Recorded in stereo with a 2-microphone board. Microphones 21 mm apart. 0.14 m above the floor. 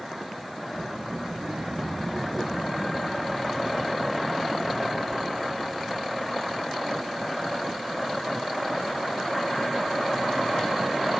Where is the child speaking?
65° right (ahead or behind), 2.5 m; by 6.6 s 75° left (ahead or behind), 7 m.